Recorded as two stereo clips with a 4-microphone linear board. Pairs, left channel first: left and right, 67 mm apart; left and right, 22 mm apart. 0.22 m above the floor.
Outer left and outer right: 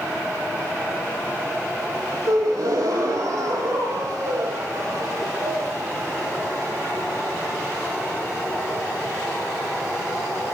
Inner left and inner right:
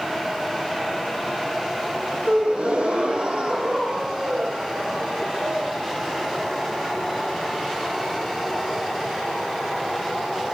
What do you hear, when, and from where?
2.3 s a gasp: 70° right (ahead or behind), 6.5 m